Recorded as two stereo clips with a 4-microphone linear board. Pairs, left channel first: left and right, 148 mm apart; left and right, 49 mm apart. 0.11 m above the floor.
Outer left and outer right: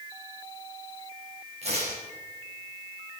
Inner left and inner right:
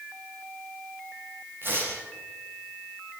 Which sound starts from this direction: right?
Tearing paper, at 1.6 s.